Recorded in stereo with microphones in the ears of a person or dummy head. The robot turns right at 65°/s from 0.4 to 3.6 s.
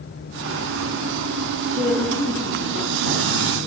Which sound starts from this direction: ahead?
A woman speaking, at 1.7 s.